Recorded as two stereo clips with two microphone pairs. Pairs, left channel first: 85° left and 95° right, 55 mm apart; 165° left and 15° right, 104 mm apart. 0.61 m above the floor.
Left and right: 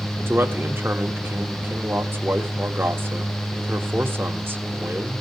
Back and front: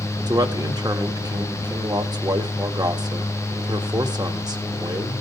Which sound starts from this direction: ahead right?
A man speaking, at 0.3 s.